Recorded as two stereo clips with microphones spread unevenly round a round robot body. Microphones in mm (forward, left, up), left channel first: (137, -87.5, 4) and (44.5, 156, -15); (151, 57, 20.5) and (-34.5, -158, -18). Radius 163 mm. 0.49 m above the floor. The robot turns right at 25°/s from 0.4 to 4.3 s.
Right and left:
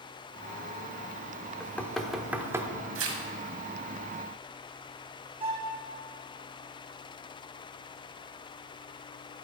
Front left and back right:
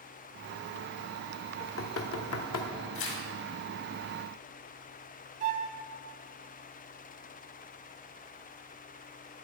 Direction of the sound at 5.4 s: 175° left.